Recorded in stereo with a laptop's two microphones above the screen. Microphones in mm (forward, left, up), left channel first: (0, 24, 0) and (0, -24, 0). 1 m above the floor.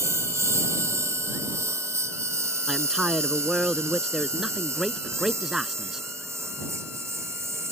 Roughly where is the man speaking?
Centre.